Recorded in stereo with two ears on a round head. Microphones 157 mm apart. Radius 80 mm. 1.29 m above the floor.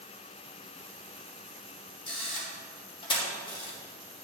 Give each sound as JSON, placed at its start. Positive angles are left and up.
{"t": 2.1, "sound": "a camera shutter", "side_deg": 30, "distance_m": 3.0}